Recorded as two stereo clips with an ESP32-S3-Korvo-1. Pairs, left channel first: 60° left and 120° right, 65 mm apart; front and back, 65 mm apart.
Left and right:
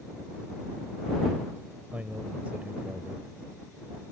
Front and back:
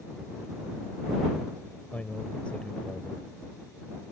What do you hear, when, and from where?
1.9 s a man speaking: 60° right